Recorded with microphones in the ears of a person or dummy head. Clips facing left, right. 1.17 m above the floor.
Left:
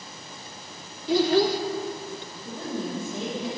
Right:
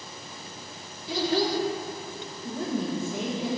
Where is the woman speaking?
5° right (ahead or behind), 1.2 m.